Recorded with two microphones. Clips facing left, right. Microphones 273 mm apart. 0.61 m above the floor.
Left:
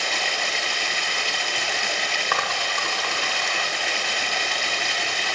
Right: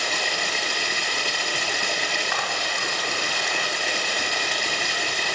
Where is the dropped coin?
80° left, 1.0 m.